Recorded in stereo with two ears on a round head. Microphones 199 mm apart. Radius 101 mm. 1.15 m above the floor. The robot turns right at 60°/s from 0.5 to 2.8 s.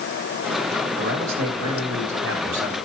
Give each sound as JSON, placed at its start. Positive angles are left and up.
{"t": 1.0, "sound": "a man speaking", "azimuth_deg": -130, "distance_m": 4.0}